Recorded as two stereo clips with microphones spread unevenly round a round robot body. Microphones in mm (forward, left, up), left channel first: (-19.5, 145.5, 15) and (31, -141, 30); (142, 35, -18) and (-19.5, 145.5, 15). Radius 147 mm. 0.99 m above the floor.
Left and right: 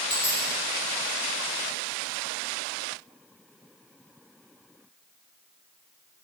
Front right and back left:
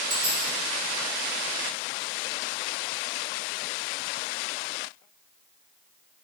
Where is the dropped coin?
165° left, 1.4 m.